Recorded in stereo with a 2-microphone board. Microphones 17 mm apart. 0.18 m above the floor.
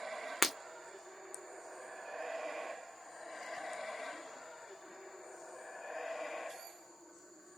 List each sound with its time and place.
0.4 s breaking glass: centre (ahead or behind), 0.7 m